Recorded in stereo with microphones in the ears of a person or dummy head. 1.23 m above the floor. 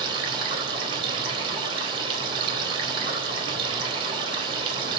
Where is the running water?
35° right (ahead or behind), 3 m.